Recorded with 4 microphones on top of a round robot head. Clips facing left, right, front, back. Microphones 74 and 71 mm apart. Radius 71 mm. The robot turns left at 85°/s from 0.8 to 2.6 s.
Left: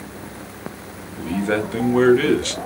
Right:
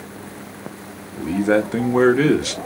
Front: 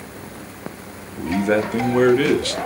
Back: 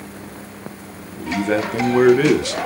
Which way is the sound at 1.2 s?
40° right.